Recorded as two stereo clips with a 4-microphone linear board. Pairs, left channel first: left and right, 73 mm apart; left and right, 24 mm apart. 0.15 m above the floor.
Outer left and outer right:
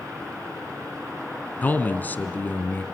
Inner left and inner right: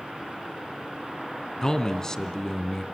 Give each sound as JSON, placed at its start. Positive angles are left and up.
{"t": 1.6, "sound": "a man speaking", "side_deg": 25, "distance_m": 1.5}